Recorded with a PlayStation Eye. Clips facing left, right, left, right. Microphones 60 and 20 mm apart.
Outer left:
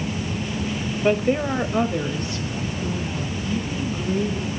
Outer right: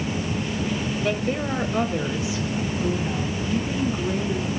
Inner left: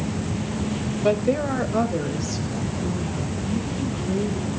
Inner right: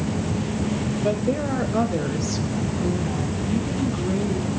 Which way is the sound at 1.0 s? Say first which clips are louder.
Outer left 7 dB, inner left 4 dB; 25° left (ahead or behind).